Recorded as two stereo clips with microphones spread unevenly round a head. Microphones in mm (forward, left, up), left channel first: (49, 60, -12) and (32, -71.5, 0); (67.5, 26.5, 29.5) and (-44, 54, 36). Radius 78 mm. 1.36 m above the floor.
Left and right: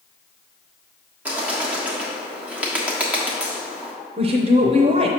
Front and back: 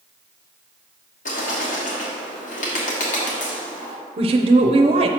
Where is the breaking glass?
No breaking glass in this recording.